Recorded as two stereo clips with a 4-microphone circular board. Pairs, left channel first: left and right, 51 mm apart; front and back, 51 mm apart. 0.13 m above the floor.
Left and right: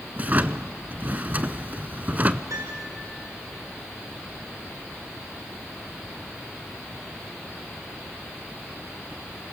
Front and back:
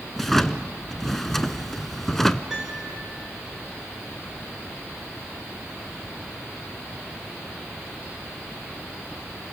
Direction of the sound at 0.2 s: 80° right.